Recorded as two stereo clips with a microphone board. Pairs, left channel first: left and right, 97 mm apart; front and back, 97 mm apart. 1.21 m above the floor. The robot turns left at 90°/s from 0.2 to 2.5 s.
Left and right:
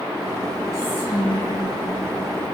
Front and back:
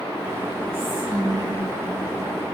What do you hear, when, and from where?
0.7 s whispering: straight behind, 1.5 m; by 1.6 s 95° left, 1.5 m